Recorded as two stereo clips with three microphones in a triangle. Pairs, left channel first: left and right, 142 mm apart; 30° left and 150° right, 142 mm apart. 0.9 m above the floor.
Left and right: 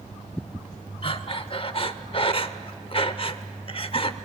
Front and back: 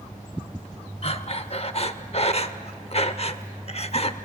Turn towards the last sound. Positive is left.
turn(degrees=55)